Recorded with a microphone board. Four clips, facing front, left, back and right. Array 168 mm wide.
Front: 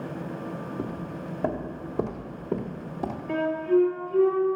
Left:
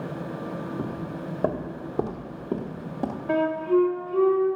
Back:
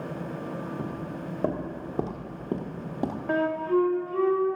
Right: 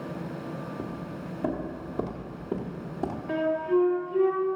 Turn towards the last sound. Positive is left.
turn(degrees=155)